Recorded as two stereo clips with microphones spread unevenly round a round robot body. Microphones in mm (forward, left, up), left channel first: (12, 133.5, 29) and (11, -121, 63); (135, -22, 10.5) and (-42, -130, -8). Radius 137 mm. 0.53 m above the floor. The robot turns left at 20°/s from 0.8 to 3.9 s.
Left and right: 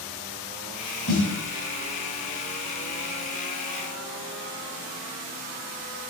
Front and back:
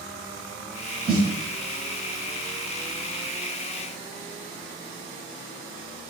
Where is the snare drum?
150° left, 0.8 m; by 1.3 s 145° left, 0.8 m.